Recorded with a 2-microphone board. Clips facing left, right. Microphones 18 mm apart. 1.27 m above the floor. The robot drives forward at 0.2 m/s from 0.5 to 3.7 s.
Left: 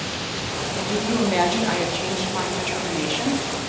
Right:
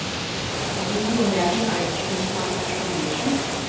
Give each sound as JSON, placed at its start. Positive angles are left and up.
{"t": 0.8, "sound": "a woman speaking", "side_deg": 35, "distance_m": 1.0}